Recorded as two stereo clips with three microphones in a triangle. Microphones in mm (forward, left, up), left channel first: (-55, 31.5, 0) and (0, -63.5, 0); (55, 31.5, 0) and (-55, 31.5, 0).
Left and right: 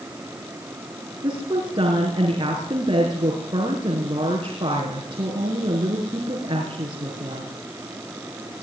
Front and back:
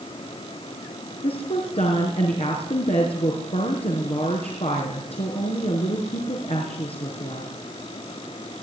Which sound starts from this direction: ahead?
A woman speaking, at 1.2 s.